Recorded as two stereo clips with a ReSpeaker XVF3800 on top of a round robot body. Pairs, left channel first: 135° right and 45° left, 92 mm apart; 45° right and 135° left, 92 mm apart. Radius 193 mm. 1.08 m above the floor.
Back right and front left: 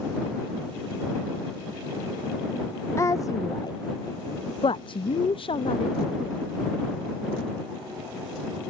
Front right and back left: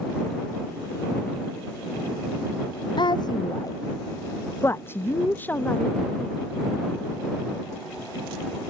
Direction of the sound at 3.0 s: 75° right.